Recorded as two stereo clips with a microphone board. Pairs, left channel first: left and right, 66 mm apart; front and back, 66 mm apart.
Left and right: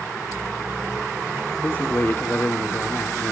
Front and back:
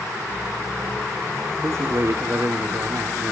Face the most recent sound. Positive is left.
turn(degrees=140)